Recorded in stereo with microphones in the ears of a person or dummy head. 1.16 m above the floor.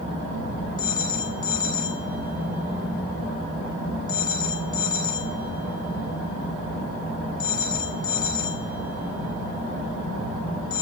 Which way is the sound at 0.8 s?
25° left (ahead or behind).